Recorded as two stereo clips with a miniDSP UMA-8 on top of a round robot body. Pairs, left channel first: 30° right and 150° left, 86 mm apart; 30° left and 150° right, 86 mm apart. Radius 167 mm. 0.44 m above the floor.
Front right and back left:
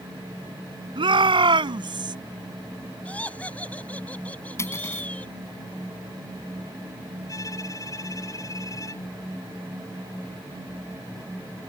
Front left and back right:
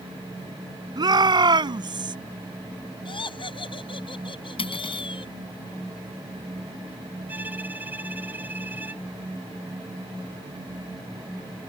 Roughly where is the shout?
Behind.